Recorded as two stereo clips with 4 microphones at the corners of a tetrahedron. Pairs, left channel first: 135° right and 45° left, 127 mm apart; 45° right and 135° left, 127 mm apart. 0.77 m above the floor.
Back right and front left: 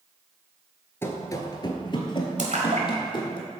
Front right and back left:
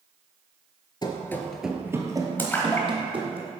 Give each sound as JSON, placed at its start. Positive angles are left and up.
{"t": 1.0, "sound": "running footsteps", "azimuth_deg": -75, "distance_m": 0.9}
{"t": 2.4, "sound": "a splash", "azimuth_deg": 30, "distance_m": 1.3}